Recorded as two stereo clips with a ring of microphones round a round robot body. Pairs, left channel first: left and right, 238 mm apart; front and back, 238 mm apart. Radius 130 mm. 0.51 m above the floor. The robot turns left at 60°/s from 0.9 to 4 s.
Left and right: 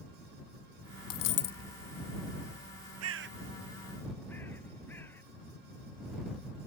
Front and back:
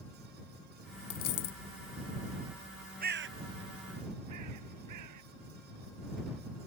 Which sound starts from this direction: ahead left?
A dropped coin, at 1.1 s.